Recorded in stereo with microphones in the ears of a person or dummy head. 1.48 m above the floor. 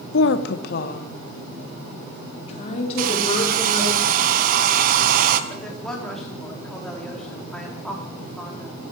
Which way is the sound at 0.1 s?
75° left (ahead or behind).